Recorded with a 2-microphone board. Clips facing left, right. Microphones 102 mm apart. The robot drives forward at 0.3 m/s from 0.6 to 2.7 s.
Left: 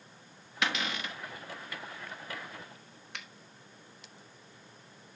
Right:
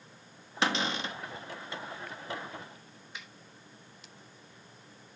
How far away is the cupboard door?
About 0.8 m.